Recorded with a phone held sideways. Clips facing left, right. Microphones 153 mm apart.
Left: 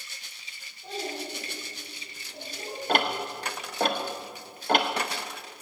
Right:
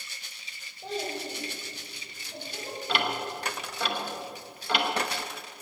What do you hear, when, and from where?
0.8 s a child speaking: 75° right (ahead or behind), 3.5 m
2.9 s ticking: 45° left (ahead or behind), 1.2 m